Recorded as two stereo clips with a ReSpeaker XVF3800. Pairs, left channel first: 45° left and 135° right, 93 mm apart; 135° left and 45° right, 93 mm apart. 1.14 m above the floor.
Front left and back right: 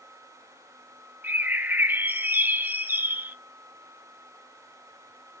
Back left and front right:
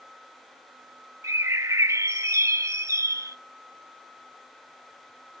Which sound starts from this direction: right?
A bird, at 1.2 s.